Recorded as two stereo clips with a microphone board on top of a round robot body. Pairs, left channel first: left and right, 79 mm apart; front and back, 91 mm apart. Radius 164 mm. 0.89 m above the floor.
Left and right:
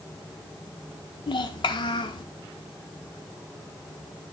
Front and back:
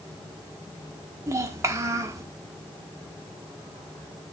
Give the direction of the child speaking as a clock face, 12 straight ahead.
8 o'clock.